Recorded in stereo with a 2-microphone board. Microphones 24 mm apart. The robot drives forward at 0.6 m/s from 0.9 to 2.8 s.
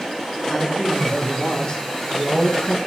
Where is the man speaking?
30° left (ahead or behind), 4 m; by 2.8 s 40° left (ahead or behind), 3 m.